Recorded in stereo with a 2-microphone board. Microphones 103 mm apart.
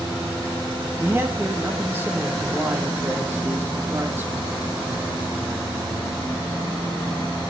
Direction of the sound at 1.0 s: 25° right (ahead or behind).